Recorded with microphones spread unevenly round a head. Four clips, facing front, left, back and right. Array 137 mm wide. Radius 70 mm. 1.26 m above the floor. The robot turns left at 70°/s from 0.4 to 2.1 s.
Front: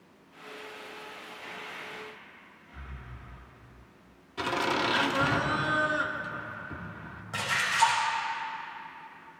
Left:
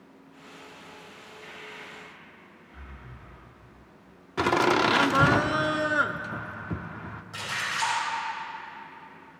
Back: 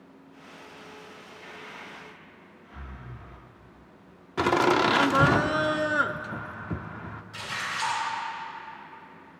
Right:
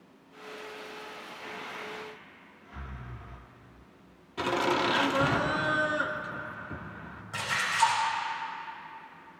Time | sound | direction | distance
1.4 | breathing | 90° right | 1.3 m
4.4 | laughter | 135° left | 0.6 m
7.3 | a splash | 10° right | 5 m